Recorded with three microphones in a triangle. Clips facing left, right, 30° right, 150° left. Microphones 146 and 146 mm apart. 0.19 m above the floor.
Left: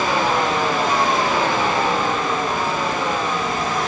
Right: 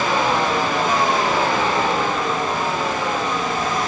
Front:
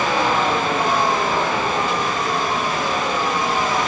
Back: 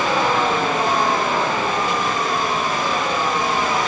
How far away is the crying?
I don't hear crying.